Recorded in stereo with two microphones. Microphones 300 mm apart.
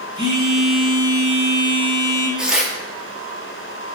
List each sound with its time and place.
0.2 s a phone buzzing: 20° right (ahead or behind), 1.1 m
2.4 s tearing paper: centre (ahead or behind), 0.6 m